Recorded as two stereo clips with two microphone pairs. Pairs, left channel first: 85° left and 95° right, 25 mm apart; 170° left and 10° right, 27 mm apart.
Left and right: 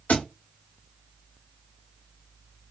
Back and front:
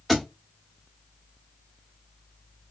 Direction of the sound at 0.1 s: 80° left.